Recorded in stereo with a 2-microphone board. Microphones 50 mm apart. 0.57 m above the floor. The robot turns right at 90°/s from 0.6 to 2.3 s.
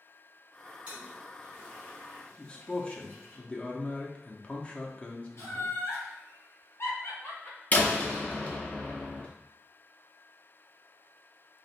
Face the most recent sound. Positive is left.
turn(degrees=35)  # may be behind; listen again after turning